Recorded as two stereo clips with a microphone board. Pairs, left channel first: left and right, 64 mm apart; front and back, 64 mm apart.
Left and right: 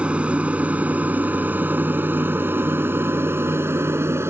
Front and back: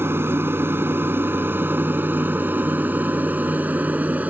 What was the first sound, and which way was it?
An aircraft, 150° right.